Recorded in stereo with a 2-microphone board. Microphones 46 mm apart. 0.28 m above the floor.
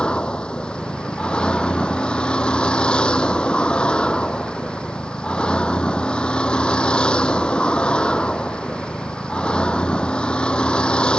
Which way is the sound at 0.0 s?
25° left (ahead or behind).